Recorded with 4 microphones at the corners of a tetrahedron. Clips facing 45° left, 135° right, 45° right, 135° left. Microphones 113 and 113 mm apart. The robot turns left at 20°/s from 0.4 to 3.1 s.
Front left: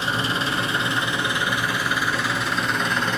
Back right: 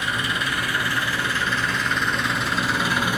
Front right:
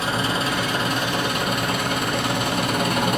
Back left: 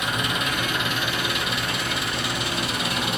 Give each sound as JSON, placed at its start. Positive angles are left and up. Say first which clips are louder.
{"t": 0.0, "sound": "an engine running", "louder": "front left 2 dB, front right 3 dB", "azimuth_deg": -5, "distance_m": 1.2}